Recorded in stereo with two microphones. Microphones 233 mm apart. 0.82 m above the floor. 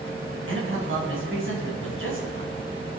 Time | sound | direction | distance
0.5 | a man speaking | 60° right (ahead or behind) | 4.5 m